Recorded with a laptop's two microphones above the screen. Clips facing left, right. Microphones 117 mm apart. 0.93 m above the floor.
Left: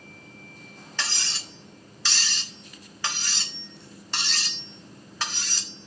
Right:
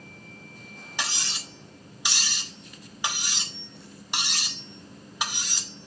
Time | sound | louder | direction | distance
1.0 | cutlery clinking | right 1 dB | 15° right (ahead or behind) | 1.2 m